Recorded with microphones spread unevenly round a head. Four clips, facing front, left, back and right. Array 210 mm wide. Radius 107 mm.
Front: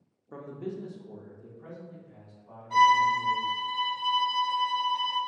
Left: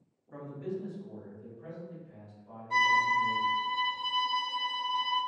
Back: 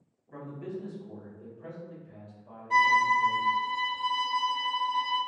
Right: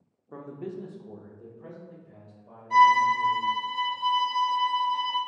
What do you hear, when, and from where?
0.3 s a man speaking: 45° right, 0.6 m; by 3.6 s 130° right, 1.9 m
2.7 s a violin: 135° right, 1.6 m